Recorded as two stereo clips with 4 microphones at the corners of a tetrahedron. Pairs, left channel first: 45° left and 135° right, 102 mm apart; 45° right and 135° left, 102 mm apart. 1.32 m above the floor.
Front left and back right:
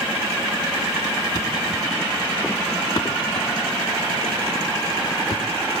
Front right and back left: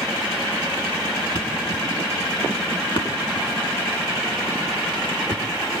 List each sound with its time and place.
1.4 s a thud: 10° right, 5.5 m